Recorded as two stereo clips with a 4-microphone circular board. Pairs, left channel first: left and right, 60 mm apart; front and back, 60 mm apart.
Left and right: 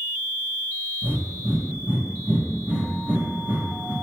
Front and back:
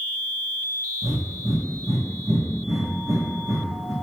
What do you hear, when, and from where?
1.0 s breathing: 155° right, 1.1 m